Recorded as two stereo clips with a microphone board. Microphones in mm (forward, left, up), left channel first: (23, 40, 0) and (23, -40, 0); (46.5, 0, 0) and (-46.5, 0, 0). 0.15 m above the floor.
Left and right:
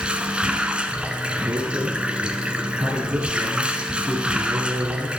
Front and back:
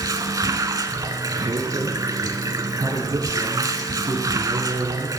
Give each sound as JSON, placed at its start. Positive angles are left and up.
{"t": 0.0, "sound": "running water", "azimuth_deg": -160, "distance_m": 1.0}
{"t": 1.4, "sound": "a man speaking", "azimuth_deg": -145, "distance_m": 4.5}